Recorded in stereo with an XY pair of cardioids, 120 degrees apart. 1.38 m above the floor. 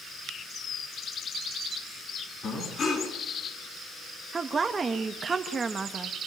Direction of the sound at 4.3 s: 25° right.